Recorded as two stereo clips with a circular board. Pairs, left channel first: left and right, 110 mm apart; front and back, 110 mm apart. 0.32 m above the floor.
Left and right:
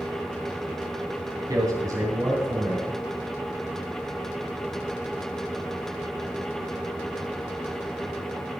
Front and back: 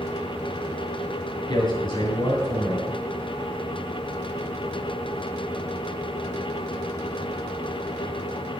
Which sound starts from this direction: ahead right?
A man speaking, at 1.5 s.